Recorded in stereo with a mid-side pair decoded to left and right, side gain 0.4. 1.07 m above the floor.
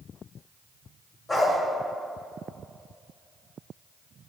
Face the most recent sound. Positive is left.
turn(degrees=35)